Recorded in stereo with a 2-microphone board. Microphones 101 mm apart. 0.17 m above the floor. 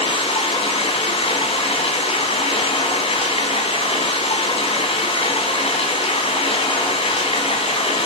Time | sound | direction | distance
0.0 | running water | 65° left (ahead or behind) | 5 m